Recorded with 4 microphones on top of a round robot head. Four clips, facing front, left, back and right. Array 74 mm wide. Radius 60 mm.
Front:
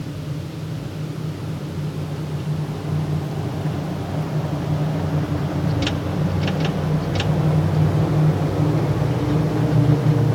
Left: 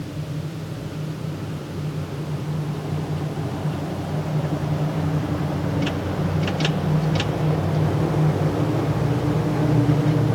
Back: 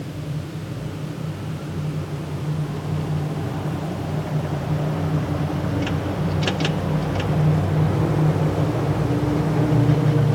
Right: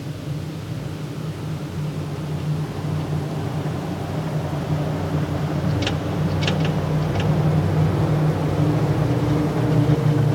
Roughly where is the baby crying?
No baby crying in this recording.